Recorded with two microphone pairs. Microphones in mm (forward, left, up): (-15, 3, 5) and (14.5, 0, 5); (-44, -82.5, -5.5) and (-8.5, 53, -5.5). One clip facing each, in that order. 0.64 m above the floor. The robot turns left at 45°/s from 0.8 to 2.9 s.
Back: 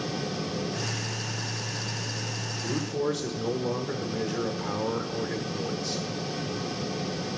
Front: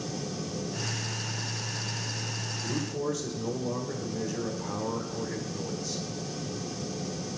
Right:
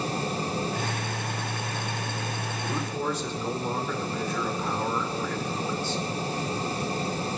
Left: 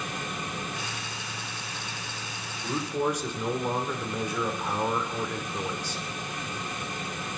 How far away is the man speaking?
About 2 m.